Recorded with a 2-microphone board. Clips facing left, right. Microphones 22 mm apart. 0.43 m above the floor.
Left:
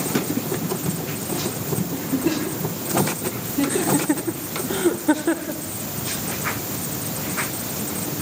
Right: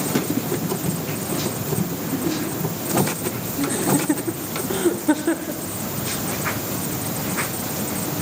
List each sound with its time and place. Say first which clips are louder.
1.9 s a giggle: left 1 dB; 70° left (ahead or behind), 5.5 m
3.7 s laughter: right 2 dB; 10° left (ahead or behind), 1.1 m